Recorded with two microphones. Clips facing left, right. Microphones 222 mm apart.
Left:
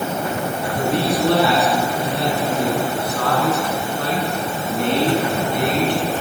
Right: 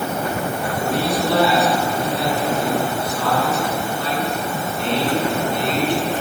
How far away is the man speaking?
About 8.5 m.